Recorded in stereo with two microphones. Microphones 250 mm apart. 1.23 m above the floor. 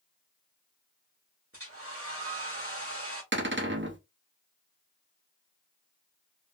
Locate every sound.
1.5 s a hair dryer: 60° right (ahead or behind), 1.3 m
3.3 s a cupboard door: 50° right (ahead or behind), 0.7 m